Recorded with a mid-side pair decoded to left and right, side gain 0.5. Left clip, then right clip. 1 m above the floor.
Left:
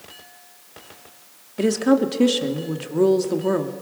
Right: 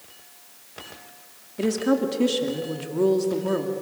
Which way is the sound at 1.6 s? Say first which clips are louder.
Left 4 dB; 30° left.